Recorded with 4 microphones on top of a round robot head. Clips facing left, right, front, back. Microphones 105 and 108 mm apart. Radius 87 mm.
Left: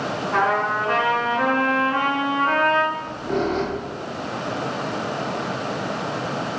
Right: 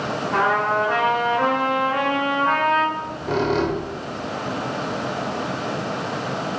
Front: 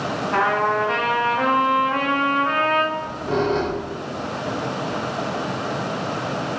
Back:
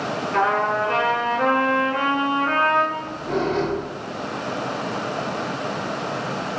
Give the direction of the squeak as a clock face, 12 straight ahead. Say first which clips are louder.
Right 1 dB, front 2 dB; 2 o'clock.